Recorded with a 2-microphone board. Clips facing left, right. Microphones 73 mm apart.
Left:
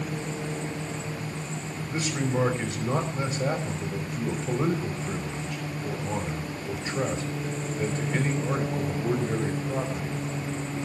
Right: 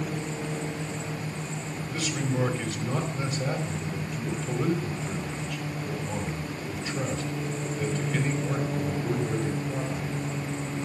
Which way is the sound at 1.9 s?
30° left (ahead or behind).